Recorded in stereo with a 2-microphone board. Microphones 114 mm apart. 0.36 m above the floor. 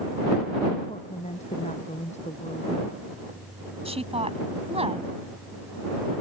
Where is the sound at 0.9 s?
85° left; by 3.0 s 75° left (ahead or behind).